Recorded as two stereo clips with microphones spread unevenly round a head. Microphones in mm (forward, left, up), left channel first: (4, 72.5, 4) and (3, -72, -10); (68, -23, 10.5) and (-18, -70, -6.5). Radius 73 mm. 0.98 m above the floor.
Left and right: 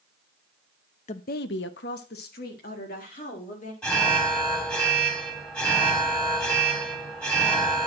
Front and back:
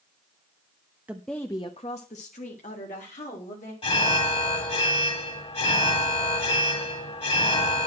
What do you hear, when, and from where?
1.1 s a woman speaking: 135° left, 0.8 m; by 3.7 s 50° left, 3 m
3.8 s an alarm: 5° left, 2.5 m